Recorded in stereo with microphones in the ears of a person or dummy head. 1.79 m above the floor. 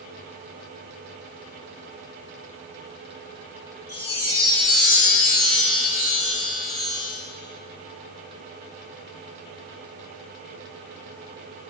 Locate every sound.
3.9 s a chime: 50° left (ahead or behind), 1.4 m